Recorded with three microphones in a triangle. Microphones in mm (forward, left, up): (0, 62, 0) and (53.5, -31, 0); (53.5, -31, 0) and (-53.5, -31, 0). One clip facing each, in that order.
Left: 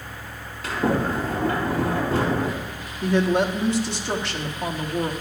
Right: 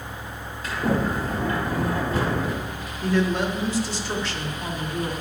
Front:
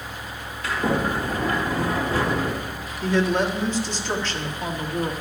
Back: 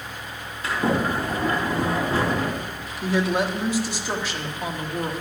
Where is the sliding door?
120° left, 4 m.